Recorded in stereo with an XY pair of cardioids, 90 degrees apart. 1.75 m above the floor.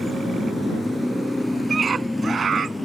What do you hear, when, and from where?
0.0 s a motorcycle: 5° right; by 2.9 s 10° left
1.7 s a scream: 50° right